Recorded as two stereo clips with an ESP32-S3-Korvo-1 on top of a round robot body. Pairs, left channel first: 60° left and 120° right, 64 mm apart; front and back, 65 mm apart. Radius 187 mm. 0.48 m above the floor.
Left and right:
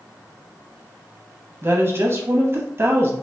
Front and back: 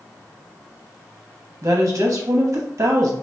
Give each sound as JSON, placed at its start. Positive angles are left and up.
{"t": 1.6, "sound": "a woman speaking", "azimuth_deg": -155, "distance_m": 0.9}